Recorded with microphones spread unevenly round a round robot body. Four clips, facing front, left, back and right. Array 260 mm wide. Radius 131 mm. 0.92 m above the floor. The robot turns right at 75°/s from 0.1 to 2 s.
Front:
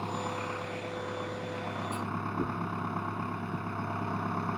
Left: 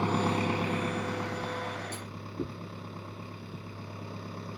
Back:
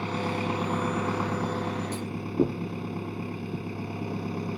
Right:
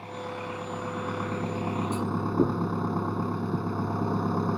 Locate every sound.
0.0 s an engine running: 110° left; by 4.6 s 110° right
1.9 s a clunk: 145° right; by 2.6 s 140° right